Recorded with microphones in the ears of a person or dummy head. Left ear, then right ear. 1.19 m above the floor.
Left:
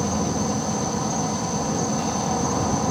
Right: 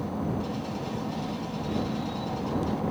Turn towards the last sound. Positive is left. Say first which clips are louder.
# left 8 dB
turn(degrees=70)  # may be behind; listen again after turning